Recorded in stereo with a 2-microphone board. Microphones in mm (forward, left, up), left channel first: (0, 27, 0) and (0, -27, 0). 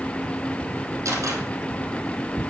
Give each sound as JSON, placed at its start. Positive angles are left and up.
{"t": 1.1, "sound": "a camera shutter", "side_deg": -70, "distance_m": 3.0}